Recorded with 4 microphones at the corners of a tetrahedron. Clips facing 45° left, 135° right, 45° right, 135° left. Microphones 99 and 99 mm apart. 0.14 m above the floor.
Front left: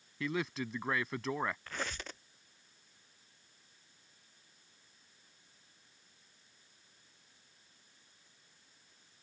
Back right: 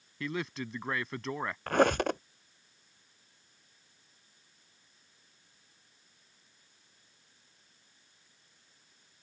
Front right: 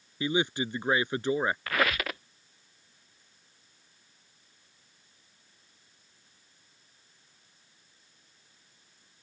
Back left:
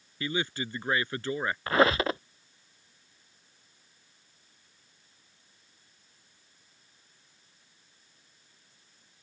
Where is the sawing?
I don't hear sawing.